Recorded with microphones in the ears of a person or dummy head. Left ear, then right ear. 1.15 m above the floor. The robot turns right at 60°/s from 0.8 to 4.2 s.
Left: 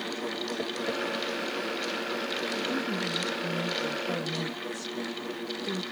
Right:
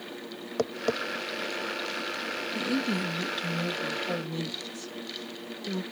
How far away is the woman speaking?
About 1.9 m.